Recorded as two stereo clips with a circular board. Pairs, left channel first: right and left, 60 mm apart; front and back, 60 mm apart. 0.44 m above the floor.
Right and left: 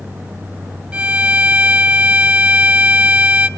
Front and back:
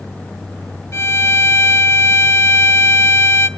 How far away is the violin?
About 1.4 m.